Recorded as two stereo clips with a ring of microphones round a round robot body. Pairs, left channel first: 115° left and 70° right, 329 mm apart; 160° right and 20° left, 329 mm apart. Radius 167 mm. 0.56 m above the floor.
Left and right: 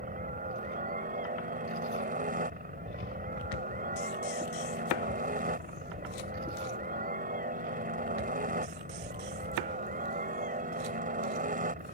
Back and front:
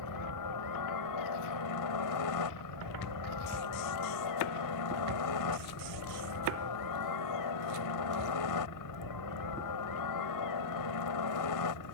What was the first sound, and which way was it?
A helicopter, 135° right.